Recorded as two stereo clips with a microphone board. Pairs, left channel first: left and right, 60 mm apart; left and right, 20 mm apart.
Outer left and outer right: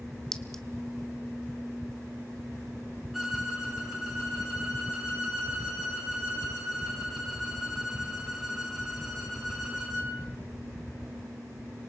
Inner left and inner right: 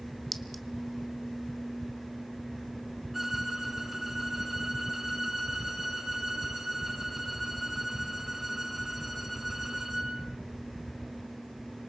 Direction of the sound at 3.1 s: 5° right (ahead or behind).